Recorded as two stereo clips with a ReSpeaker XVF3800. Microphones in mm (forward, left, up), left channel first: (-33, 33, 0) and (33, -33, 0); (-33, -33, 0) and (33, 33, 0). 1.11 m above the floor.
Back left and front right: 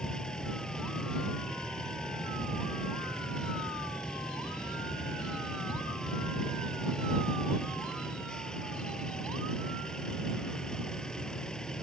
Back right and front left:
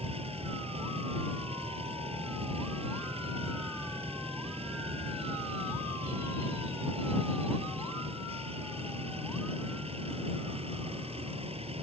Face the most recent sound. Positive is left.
turn(degrees=50)